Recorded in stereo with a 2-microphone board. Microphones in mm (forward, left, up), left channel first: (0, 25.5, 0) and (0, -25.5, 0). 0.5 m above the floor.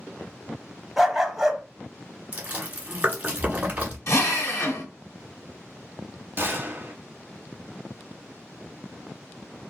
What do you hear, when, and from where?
1.0 s a dog barking: centre (ahead or behind), 0.6 m
2.3 s chewing: 30° right (ahead or behind), 1.3 m
4.1 s a drill: 70° left (ahead or behind), 1.0 m
6.4 s a gunshot: 45° right (ahead or behind), 0.9 m